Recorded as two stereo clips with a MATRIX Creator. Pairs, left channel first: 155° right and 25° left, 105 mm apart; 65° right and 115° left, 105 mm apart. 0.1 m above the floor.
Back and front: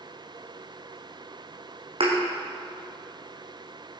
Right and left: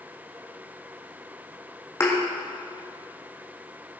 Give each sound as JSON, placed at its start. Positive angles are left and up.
{"t": 2.0, "sound": "a thud", "azimuth_deg": -5, "distance_m": 3.5}